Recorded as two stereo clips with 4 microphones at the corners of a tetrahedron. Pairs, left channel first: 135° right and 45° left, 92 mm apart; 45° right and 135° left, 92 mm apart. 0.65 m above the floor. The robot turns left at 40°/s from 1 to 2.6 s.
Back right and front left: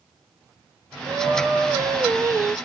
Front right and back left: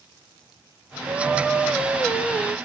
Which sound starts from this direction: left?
Singing, at 1.1 s.